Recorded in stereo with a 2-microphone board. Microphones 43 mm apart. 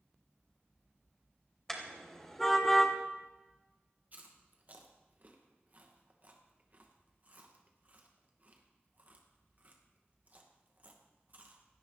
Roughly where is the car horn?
Centre.